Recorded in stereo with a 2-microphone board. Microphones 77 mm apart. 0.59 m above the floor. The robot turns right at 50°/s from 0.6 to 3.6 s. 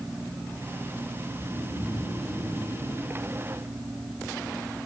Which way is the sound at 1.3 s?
90° left.